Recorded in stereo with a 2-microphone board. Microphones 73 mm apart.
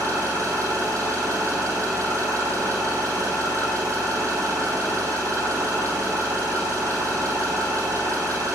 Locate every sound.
0.0 s an engine running: 45° right (ahead or behind), 2.5 m